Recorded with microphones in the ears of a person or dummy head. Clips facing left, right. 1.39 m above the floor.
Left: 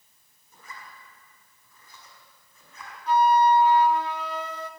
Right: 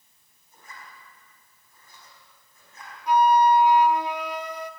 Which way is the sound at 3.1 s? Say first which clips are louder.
Right 1 dB; 15° right (ahead or behind).